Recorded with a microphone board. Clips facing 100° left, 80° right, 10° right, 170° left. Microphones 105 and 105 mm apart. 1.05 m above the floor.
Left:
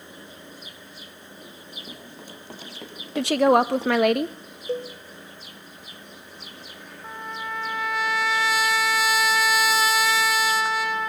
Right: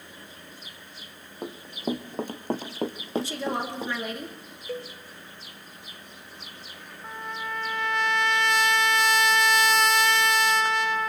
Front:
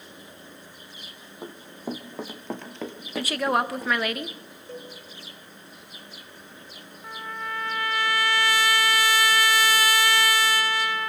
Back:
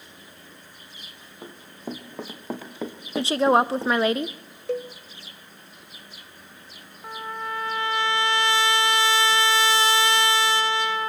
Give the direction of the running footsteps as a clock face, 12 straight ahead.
3 o'clock.